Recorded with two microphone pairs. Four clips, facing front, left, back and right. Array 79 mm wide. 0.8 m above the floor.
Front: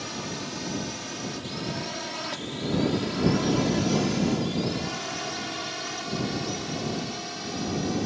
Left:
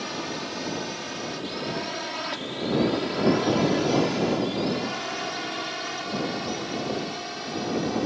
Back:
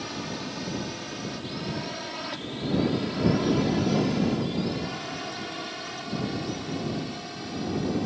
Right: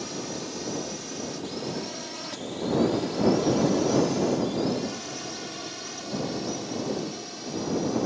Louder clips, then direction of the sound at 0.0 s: Left 2 dB, even; 85° left.